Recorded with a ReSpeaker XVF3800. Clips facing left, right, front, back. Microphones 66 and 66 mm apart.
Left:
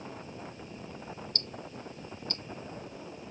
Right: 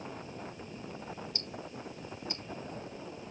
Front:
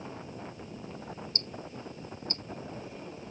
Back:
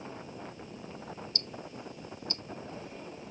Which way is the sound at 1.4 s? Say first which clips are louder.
Even, front 1 dB; 25° right.